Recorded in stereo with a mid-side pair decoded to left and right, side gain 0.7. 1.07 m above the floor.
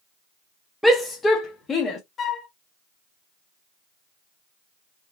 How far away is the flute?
About 0.8 m.